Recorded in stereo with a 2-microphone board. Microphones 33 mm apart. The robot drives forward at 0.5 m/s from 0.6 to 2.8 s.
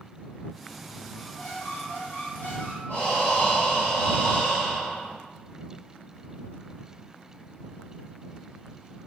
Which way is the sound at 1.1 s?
60° left (ahead or behind).